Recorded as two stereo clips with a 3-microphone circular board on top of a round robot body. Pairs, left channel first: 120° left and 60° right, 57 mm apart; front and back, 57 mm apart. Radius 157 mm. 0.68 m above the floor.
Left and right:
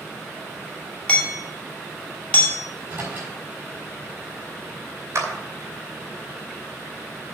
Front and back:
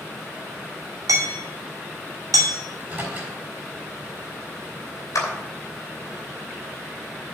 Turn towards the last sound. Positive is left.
turn(degrees=-25)